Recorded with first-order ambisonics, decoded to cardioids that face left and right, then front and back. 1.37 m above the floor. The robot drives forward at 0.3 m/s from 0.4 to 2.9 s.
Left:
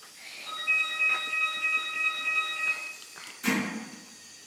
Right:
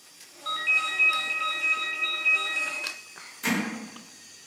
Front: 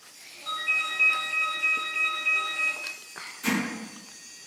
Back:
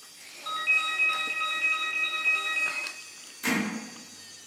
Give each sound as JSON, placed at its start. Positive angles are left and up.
{"t": 0.5, "sound": "a ringtone", "azimuth_deg": -115, "distance_m": 0.7}
{"t": 3.4, "sound": "hammering", "azimuth_deg": -120, "distance_m": 1.2}